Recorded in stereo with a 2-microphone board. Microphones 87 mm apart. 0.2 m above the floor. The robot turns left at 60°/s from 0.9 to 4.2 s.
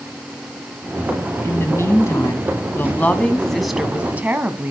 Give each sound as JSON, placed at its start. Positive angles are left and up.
{"t": 1.4, "sound": "a woman speaking", "azimuth_deg": 130, "distance_m": 1.5}